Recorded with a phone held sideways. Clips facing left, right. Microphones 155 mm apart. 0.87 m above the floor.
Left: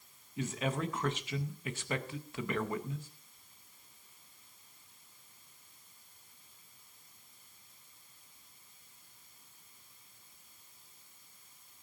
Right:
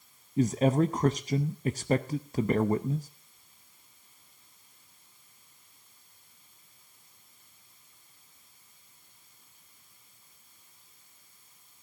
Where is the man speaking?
40° right (ahead or behind), 0.6 m.